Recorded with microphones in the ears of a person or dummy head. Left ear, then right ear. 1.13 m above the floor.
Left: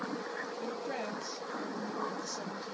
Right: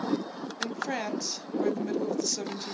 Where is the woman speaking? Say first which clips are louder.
Right 10 dB; 60° right (ahead or behind), 0.8 m.